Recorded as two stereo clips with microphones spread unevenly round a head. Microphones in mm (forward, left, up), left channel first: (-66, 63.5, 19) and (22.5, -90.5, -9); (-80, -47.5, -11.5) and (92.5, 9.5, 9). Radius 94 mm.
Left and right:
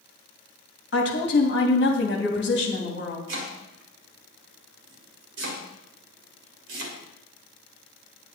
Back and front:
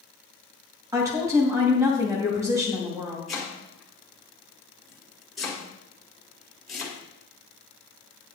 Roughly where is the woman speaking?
Left.